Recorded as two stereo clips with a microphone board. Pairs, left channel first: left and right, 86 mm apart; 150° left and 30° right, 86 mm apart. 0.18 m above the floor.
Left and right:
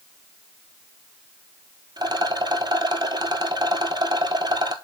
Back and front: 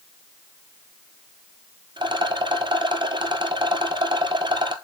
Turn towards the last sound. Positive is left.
turn(degrees=-55)